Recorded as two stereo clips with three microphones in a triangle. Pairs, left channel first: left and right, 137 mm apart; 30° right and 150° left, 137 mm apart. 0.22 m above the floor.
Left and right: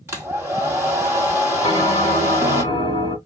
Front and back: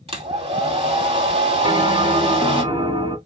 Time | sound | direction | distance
0.1 | a hair dryer | 165° right | 2 m
1.6 | a bell | 115° left | 1.9 m